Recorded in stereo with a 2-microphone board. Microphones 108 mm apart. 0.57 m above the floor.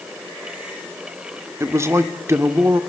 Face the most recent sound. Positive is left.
turn(degrees=-30)  # may be behind; listen again after turning